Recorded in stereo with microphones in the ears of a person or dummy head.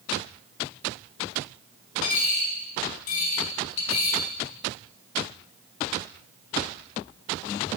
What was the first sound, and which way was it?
A dropped coin, 70° left (ahead or behind).